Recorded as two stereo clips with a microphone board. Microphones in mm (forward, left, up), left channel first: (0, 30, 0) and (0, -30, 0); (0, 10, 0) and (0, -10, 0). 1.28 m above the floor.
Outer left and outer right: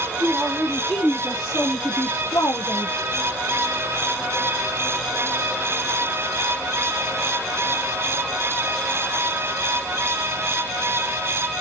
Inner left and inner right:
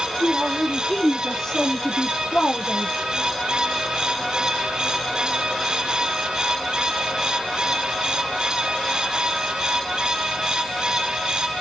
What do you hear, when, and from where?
0.2 s a man speaking: 10° right (ahead or behind), 2.5 m; by 3.0 s 80° left, 1.0 m